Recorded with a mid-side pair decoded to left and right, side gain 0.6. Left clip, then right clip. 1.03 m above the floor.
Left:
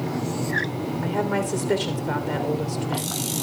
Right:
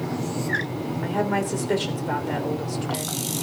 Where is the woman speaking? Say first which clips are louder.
Right 1 dB; straight ahead, 3.5 m.